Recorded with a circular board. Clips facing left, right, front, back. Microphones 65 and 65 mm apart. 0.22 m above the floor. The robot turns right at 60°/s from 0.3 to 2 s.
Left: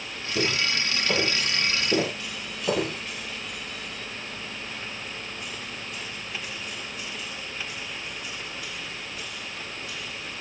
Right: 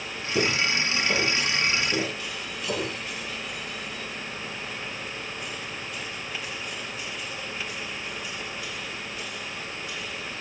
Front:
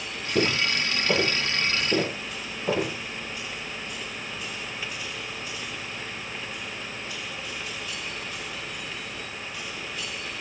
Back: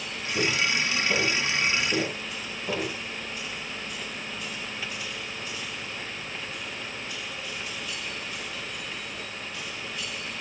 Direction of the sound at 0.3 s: 25° right.